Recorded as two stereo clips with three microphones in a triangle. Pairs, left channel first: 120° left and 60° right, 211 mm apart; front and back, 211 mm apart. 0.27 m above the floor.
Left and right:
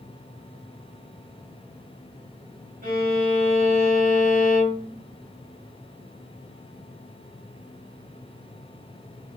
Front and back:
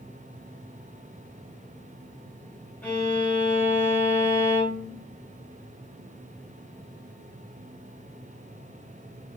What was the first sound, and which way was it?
A violin, 80° right.